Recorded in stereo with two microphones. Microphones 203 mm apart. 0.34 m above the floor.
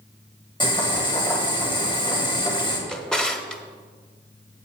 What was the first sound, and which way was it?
Boiling, 20° left (ahead or behind).